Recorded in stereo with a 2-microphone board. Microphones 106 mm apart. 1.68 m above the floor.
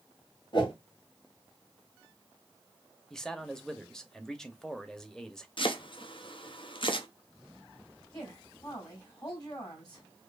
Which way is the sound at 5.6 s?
55° left (ahead or behind).